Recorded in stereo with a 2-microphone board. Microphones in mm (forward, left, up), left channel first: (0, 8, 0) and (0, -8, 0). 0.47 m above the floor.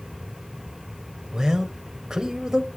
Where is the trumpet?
I don't hear a trumpet.